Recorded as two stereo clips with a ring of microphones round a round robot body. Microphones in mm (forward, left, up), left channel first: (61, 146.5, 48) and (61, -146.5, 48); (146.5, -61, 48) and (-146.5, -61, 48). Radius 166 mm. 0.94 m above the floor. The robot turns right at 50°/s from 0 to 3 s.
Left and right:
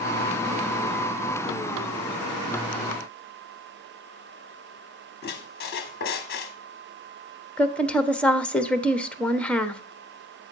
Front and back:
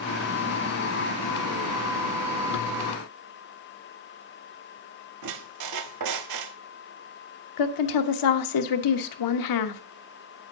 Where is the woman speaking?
5° left, 1.1 m.